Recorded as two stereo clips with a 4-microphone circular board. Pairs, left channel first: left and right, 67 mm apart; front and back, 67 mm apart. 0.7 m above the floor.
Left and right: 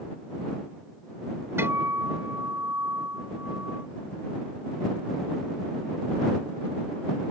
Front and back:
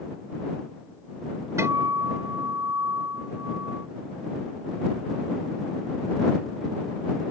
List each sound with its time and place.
1.6 s a guitar: 140° right